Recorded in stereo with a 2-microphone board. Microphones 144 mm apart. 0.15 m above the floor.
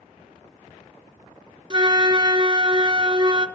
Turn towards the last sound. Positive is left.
turn(degrees=-35)  # may be behind; listen again after turning